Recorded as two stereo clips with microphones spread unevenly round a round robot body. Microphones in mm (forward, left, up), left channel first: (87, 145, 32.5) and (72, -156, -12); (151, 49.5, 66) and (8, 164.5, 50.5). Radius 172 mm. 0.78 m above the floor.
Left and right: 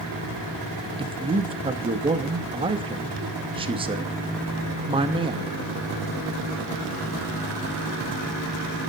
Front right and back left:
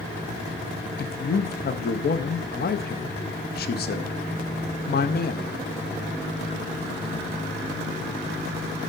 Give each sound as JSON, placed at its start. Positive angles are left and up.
{"t": 1.0, "sound": "a man speaking", "azimuth_deg": -35, "distance_m": 0.8}